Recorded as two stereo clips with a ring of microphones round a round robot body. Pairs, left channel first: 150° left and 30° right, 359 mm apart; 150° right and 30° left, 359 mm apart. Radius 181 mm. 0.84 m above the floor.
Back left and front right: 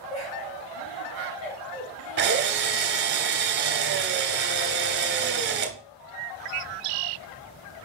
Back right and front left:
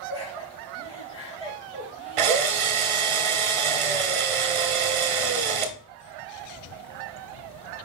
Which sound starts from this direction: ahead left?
A drill, at 2.2 s.